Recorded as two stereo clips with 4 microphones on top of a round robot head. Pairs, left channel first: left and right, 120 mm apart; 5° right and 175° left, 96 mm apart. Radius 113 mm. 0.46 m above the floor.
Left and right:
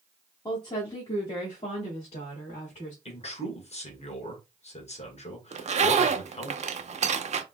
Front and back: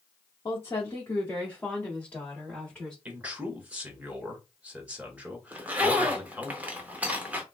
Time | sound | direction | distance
0.5 | a woman speaking | 40° left | 1.1 m
3.0 | a man speaking | 100° left | 1.9 m
5.5 | a zipper | 110° right | 0.6 m